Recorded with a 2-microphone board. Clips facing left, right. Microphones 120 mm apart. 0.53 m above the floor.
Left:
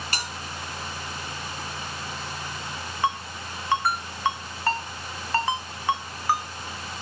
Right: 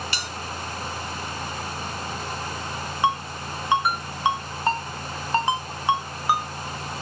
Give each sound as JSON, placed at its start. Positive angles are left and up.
{"t": 0.1, "sound": "a bell", "side_deg": 45, "distance_m": 3.0}
{"t": 3.0, "sound": "a ringtone", "side_deg": -15, "distance_m": 1.7}